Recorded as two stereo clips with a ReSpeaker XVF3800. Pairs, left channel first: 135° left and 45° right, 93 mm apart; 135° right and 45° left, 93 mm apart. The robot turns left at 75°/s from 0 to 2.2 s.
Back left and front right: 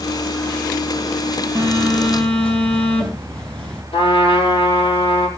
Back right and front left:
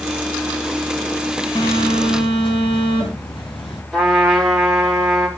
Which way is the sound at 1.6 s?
95° right.